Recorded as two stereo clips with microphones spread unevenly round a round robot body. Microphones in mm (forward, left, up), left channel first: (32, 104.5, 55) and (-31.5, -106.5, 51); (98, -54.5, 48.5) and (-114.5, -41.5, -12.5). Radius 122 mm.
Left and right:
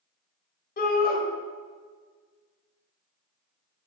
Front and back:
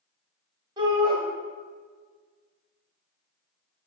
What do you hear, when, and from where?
0.8 s a shout: 115° left, 1.8 m